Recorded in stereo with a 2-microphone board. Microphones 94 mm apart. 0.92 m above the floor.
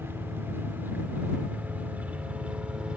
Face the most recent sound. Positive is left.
turn(degrees=-10)  # may be behind; listen again after turning